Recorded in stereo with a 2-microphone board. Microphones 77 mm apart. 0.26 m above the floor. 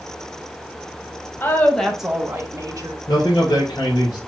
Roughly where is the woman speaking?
Left.